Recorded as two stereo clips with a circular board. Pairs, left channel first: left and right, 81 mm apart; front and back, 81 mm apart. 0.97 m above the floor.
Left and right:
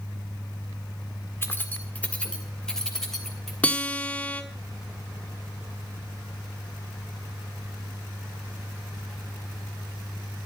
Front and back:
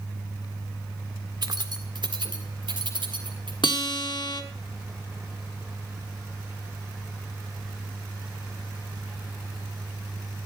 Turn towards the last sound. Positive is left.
turn(degrees=15)